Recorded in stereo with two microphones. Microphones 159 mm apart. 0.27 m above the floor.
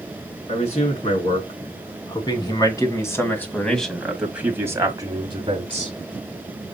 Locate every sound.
0.5 s a man speaking: 45° left (ahead or behind), 3 m; by 5.9 s 40° right (ahead or behind), 1.8 m